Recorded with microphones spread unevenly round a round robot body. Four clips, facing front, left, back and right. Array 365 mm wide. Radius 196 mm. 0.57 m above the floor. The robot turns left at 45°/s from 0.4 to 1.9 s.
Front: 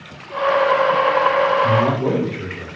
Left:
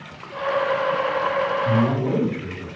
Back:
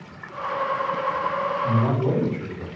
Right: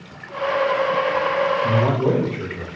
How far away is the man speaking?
About 2.5 m.